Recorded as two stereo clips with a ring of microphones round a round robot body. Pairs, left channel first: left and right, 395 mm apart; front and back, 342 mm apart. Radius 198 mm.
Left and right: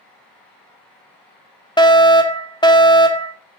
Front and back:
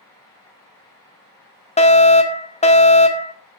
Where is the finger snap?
No finger snap in this recording.